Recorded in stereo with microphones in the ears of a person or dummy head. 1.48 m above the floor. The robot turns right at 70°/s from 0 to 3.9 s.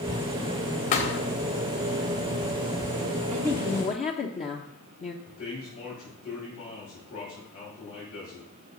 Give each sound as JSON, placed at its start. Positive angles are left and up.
{"t": 0.9, "sound": "a thud", "side_deg": 40, "distance_m": 2.0}
{"t": 3.3, "sound": "a woman speaking", "azimuth_deg": 0, "distance_m": 1.0}
{"t": 5.2, "sound": "a man speaking", "side_deg": 55, "distance_m": 5.5}